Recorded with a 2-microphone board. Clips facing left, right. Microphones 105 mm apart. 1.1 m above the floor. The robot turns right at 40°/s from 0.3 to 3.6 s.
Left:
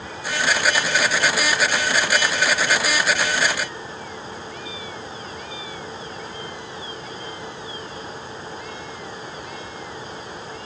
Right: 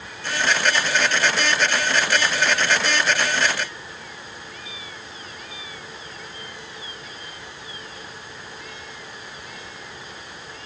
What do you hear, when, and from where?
Only background noise.